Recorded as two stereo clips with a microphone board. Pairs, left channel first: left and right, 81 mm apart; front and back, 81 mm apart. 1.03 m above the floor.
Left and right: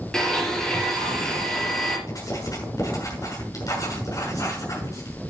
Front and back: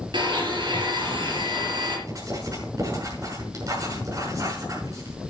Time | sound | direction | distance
0.1 | a blender | 170° left | 4.5 m
2.1 | writing | 135° left | 6.5 m